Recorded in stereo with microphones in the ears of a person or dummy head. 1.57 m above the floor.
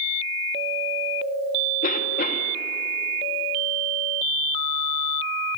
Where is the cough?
50° left (ahead or behind), 2.5 m.